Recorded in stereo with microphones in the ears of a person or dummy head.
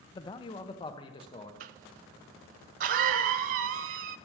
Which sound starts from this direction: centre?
A man speaking, at 0.1 s.